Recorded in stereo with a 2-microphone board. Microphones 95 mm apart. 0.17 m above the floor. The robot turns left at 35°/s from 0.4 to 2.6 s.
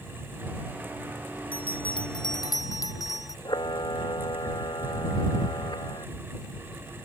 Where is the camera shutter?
50° left (ahead or behind).